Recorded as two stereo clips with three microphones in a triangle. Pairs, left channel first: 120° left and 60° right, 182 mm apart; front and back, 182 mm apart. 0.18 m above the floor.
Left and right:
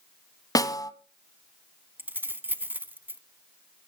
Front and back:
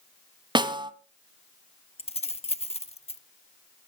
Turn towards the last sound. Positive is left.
turn(degrees=10)